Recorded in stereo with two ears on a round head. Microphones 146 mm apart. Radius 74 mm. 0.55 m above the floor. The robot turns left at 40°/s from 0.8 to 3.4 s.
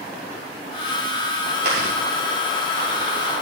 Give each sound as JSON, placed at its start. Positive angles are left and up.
{"t": 1.6, "sound": "chewing", "side_deg": -65, "distance_m": 6.5}